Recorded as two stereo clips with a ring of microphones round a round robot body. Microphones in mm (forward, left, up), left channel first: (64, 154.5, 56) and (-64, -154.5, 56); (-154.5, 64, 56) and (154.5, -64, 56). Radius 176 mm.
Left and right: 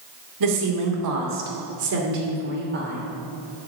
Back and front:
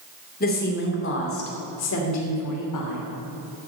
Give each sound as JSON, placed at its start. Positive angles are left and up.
{"t": 0.4, "sound": "a woman speaking", "azimuth_deg": -140, "distance_m": 2.5}